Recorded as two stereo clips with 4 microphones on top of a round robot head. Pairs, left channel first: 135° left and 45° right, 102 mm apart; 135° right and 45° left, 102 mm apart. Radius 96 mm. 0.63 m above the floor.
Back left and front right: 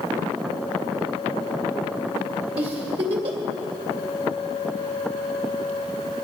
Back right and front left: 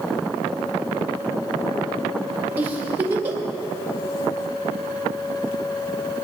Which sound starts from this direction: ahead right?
A giggle, at 2.6 s.